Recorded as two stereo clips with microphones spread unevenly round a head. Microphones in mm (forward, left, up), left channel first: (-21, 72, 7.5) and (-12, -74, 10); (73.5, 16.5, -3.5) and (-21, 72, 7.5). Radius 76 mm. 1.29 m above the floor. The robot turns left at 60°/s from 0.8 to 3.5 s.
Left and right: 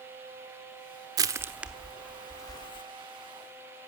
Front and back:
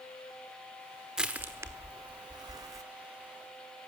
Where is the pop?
No pop in this recording.